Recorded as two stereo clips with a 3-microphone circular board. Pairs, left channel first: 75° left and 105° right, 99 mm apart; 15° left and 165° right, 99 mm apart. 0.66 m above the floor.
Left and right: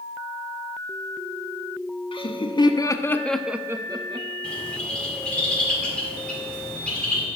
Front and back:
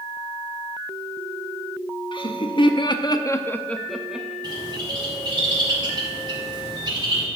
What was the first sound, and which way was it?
Laughter, 50° left.